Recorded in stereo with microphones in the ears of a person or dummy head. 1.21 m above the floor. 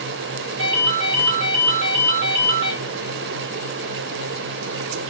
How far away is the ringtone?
About 2 m.